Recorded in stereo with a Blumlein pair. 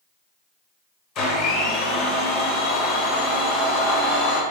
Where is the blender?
30° left, 0.9 m.